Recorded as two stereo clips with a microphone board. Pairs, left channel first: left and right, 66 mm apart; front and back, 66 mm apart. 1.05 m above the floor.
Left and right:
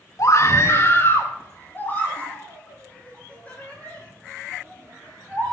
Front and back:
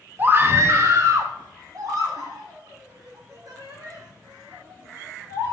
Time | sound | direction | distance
0.2 | a scream | 120° left | 1.2 m